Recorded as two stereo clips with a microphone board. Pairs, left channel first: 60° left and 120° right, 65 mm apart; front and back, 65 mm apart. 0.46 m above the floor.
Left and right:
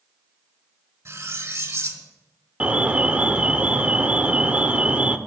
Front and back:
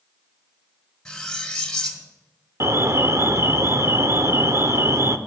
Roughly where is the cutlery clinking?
Right.